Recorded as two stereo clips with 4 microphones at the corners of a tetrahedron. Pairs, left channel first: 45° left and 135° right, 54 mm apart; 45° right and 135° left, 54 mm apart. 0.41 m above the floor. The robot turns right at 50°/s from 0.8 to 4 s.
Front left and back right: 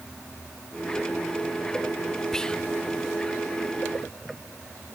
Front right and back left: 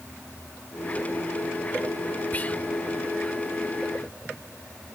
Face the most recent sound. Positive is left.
turn(degrees=60)